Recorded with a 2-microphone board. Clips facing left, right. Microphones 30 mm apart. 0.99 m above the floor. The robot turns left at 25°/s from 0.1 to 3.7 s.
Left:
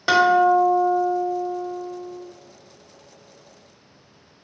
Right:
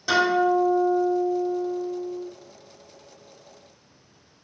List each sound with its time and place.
0.1 s a guitar: 95° left, 0.7 m; by 2.3 s 40° left, 0.7 m